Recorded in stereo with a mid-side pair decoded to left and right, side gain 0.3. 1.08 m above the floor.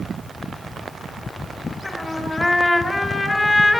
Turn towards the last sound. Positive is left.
turn(degrees=40)